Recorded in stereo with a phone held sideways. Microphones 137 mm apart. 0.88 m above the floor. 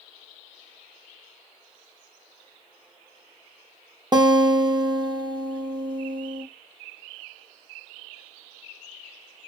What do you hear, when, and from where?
4.1 s a guitar: 30° right (ahead or behind), 0.7 m